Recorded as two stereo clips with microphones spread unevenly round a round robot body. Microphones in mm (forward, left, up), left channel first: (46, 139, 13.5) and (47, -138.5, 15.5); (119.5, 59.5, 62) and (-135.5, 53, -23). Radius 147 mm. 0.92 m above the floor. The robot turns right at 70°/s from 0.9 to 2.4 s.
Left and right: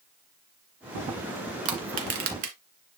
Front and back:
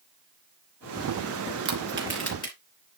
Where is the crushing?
120° right, 2.5 m; by 2.5 s 70° right, 2.5 m.